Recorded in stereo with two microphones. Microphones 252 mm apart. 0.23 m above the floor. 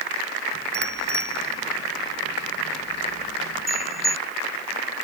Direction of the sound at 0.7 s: 80° left.